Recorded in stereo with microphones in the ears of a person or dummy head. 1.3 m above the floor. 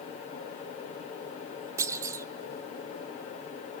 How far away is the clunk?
About 1.2 m.